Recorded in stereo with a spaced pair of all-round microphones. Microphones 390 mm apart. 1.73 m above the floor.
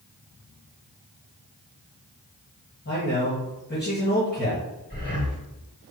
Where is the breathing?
30° left (ahead or behind), 1.6 m.